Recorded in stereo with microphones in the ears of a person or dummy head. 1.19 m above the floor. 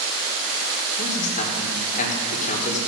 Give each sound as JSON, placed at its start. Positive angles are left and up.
{"t": 1.0, "sound": "a man speaking", "side_deg": 45, "distance_m": 3.0}